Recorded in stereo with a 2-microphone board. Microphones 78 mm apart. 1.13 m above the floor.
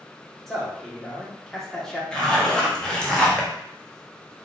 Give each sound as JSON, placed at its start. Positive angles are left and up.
{"t": 0.5, "sound": "a man speaking", "side_deg": 5, "distance_m": 1.0}
{"t": 2.1, "sound": "a zipper", "side_deg": 10, "distance_m": 0.7}